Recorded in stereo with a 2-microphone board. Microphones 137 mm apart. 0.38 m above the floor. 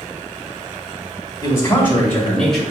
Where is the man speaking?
25° left (ahead or behind), 1.6 m; by 2.6 s centre (ahead or behind), 1.4 m.